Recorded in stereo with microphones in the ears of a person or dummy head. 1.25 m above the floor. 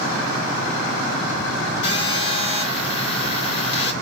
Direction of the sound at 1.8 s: 65° left (ahead or behind).